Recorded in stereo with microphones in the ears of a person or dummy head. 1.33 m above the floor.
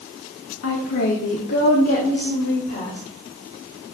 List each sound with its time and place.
0.6 s a woman speaking: 70° left (ahead or behind), 2 m; by 3.0 s 45° left (ahead or behind), 4.5 m